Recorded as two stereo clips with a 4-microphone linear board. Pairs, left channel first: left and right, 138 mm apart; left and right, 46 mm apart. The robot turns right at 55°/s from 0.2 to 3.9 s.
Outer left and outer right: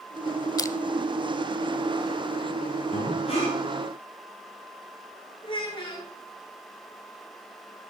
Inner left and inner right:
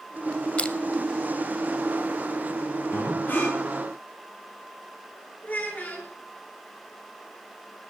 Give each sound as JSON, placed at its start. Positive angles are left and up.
{"t": 0.6, "sound": "crushing", "side_deg": 25, "distance_m": 0.8}
{"t": 2.9, "sound": "breathing", "azimuth_deg": 115, "distance_m": 8.5}
{"t": 5.4, "sound": "a child speaking", "side_deg": 35, "distance_m": 5.0}